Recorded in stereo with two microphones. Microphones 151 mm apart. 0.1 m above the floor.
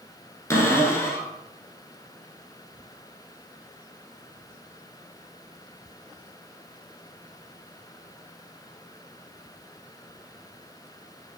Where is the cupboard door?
15° left (ahead or behind), 0.8 m.